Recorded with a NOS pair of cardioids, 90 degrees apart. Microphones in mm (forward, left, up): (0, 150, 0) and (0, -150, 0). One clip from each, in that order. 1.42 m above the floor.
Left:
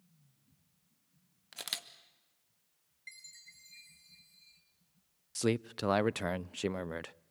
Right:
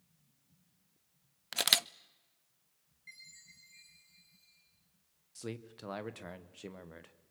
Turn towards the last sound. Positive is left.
turn(degrees=55)